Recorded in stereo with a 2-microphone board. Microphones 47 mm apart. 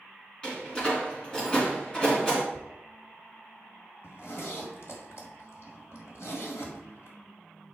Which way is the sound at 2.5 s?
10° left (ahead or behind).